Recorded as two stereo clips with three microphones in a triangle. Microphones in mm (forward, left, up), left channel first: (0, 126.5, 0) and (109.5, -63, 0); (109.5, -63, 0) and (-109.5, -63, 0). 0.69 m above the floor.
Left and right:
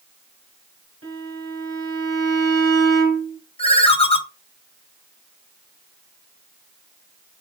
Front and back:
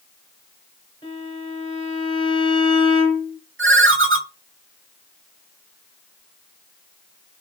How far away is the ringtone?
About 0.7 m.